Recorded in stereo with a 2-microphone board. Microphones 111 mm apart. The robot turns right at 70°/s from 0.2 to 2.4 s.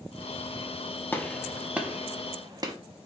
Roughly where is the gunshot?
Centre.